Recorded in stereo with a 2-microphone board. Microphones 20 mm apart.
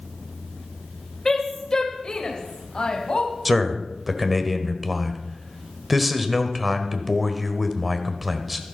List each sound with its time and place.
1.2 s a woman speaking: 20° left (ahead or behind), 1.5 m; by 3.3 s 45° left (ahead or behind), 2.5 m
3.5 s a man speaking: 10° right (ahead or behind), 1.3 m